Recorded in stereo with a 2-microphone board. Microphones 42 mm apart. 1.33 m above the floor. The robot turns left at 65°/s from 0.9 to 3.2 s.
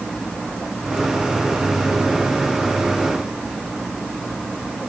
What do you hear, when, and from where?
Only background noise.